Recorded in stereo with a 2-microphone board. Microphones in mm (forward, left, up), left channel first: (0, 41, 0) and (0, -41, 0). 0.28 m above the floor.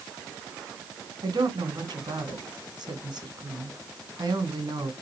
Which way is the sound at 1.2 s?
60° right (ahead or behind).